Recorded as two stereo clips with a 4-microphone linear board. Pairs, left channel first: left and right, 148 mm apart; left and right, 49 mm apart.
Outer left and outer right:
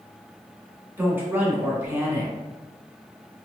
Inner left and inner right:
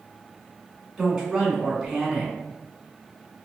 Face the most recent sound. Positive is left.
turn(degrees=-15)  # may be behind; listen again after turning